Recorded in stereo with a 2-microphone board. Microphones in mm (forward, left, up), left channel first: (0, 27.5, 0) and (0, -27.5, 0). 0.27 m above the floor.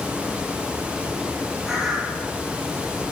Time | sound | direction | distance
1.6 | a bird | 5° right (ahead or behind) | 6 m